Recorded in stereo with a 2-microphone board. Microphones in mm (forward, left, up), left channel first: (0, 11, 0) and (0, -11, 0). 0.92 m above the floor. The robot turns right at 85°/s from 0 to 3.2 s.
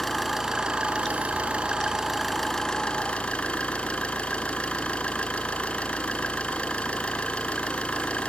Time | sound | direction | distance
0.0 | an engine running | 165° left | 2.5 m